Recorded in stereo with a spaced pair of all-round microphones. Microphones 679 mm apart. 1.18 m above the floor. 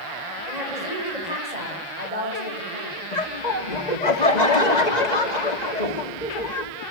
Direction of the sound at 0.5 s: 75° right (ahead or behind).